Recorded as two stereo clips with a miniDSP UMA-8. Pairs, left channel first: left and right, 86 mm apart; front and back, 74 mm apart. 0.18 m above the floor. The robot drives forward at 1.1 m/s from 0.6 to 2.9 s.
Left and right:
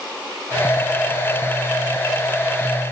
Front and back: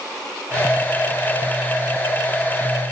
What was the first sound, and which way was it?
Only background noise.